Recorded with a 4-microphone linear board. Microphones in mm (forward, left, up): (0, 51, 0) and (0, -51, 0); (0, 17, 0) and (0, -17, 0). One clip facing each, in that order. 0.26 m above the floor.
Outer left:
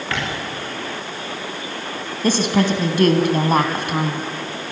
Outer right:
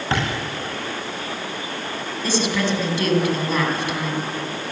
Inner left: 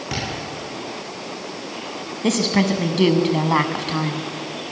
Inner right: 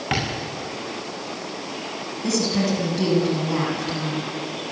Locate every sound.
0.1 s tapping: 30° right (ahead or behind), 6 m
2.2 s a woman speaking: 50° left (ahead or behind), 2.5 m